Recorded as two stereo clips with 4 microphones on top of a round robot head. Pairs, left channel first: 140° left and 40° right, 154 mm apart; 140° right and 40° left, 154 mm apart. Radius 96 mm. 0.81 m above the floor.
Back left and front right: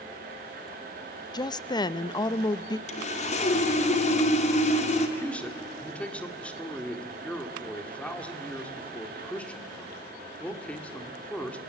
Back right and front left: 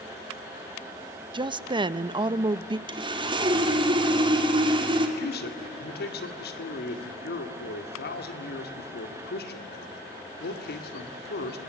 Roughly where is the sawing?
Left.